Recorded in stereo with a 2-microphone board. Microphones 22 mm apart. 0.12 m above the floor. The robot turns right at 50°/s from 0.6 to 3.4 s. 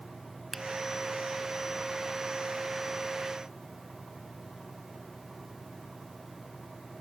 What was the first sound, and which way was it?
A finger snap, centre (ahead or behind).